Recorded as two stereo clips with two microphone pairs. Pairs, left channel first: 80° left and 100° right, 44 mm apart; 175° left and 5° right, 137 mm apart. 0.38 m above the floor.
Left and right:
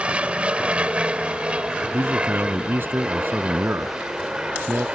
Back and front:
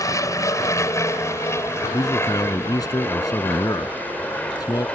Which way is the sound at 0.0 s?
140° right.